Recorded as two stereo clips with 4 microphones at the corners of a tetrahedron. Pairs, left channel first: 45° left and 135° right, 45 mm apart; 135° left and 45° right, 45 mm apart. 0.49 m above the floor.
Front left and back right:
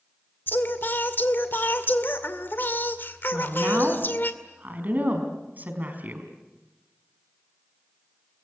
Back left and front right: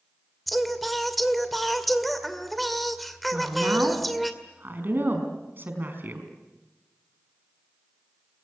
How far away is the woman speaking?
About 5 m.